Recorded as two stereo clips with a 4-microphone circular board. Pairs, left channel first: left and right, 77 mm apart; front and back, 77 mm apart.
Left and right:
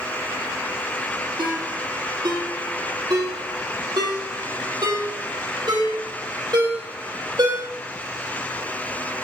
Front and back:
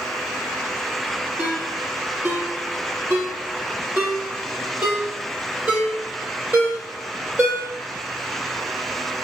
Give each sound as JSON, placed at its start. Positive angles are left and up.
{"t": 1.4, "sound": "a ringtone", "azimuth_deg": -115, "distance_m": 4.0}